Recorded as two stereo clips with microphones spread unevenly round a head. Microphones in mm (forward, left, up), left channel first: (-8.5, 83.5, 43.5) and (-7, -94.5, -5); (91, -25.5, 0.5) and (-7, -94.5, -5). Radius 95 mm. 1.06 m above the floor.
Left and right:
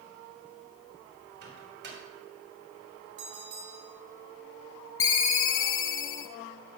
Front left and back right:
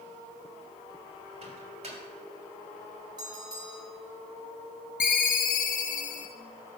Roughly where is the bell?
Right.